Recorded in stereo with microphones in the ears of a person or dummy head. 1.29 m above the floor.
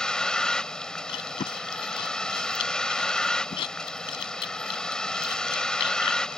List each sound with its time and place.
0.0 s a vehicle: 5° left (ahead or behind)
1.1 s chewing: 30° left (ahead or behind)